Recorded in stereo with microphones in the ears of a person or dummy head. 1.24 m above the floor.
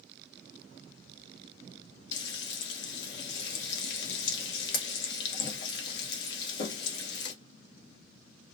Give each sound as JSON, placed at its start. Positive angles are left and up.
{"t": 2.1, "sound": "frying", "side_deg": 65, "distance_m": 0.9}